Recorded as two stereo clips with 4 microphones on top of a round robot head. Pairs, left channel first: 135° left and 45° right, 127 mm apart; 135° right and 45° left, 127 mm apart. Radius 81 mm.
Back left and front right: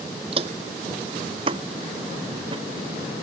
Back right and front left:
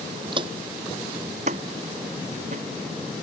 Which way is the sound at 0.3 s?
5° right.